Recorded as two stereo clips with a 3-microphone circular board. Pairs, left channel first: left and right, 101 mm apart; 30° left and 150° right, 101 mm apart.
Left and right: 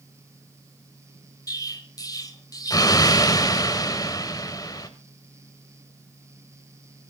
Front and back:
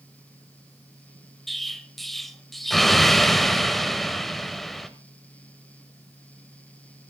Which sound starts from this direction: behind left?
An explosion, at 1.5 s.